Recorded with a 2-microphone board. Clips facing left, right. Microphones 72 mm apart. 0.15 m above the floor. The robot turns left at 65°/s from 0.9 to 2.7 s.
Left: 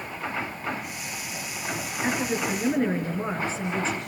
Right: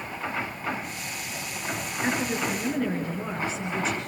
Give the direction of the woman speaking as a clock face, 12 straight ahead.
6 o'clock.